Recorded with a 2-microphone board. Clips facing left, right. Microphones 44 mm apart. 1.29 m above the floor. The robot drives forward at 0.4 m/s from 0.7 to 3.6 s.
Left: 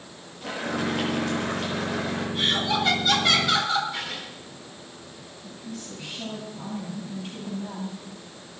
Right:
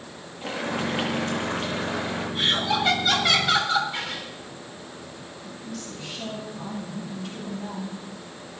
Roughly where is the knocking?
I don't hear knocking.